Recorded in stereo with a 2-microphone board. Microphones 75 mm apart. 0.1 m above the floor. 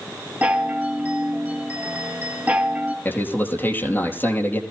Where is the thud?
I don't hear a thud.